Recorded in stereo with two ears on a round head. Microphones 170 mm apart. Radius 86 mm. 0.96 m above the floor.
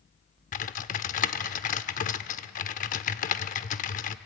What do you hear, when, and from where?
0.5 s typing on a keyboard: 40° left (ahead or behind), 0.7 m